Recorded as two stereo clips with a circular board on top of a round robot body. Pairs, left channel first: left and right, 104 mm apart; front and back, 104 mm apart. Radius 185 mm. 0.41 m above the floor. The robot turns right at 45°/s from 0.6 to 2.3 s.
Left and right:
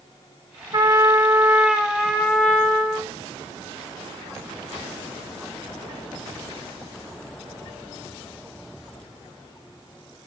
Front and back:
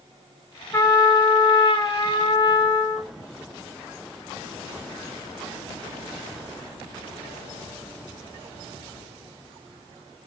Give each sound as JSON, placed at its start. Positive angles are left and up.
{"t": 0.7, "sound": "a trumpet", "azimuth_deg": -55, "distance_m": 1.1}